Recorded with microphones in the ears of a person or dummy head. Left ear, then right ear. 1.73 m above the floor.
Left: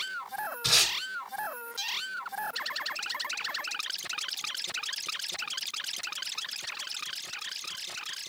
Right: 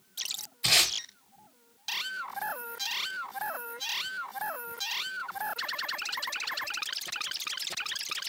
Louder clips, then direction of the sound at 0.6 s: Right 1 dB; 30° right (ahead or behind).